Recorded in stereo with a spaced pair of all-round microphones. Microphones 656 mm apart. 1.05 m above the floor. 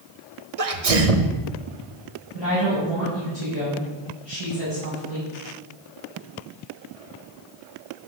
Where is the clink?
I don't hear a clink.